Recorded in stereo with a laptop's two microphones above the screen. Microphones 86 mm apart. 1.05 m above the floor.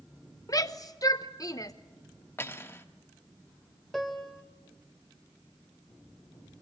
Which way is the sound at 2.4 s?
25° left (ahead or behind).